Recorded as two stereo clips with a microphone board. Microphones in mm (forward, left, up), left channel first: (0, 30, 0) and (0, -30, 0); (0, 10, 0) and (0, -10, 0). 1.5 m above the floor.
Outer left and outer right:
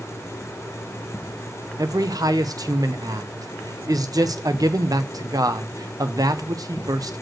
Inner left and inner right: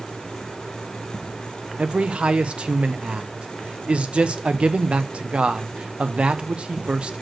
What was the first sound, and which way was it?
A man speaking, 80° right.